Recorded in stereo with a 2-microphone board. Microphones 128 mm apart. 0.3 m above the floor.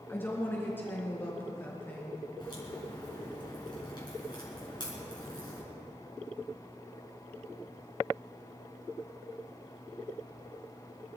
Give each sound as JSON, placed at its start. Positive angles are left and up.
{"t": 0.1, "sound": "a woman speaking", "side_deg": 15, "distance_m": 3.5}
{"t": 2.4, "sound": "a crack", "side_deg": 35, "distance_m": 4.0}